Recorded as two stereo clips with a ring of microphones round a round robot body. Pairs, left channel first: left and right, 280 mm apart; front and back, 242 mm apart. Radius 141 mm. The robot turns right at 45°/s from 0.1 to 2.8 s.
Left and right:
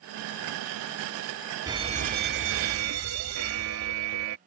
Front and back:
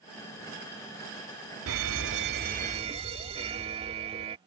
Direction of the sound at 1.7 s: 165° right.